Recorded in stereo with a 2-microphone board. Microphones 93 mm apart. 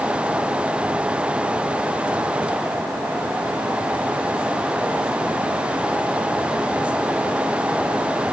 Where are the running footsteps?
No running footsteps in this recording.